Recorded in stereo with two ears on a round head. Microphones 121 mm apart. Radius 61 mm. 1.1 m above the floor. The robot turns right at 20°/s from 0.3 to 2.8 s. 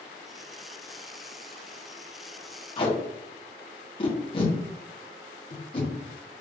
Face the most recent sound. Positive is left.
turn(degrees=40)  # may be behind; listen again after turning